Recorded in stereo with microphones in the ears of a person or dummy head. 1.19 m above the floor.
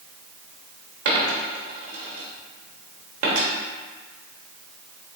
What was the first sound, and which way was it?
A dropped coin, 40° right (ahead or behind).